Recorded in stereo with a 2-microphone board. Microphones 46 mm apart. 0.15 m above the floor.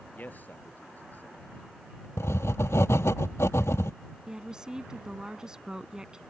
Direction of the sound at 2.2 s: 80° left.